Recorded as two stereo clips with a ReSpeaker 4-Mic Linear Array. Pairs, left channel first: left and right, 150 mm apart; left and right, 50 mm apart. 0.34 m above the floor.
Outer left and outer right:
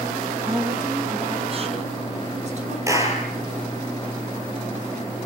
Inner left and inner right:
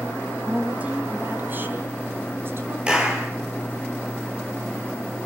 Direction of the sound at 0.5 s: 20° right (ahead or behind).